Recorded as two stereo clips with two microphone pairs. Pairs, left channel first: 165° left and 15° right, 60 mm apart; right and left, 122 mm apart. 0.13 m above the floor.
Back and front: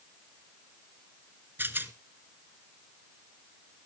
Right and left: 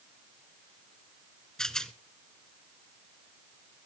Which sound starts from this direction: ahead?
A rattle, at 1.6 s.